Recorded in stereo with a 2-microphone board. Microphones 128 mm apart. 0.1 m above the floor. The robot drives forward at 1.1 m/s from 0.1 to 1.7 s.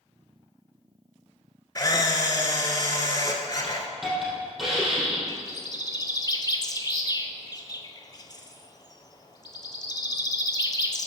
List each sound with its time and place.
1.8 s a camera shutter: 30° left (ahead or behind), 0.8 m
3.6 s a hiss: centre (ahead or behind), 3 m
5.3 s a bird: 35° left (ahead or behind), 0.6 m